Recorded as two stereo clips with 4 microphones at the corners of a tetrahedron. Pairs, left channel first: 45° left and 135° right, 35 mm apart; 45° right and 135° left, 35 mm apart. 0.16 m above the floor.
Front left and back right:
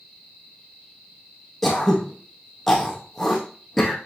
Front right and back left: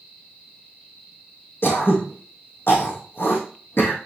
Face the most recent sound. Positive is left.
turn(degrees=-45)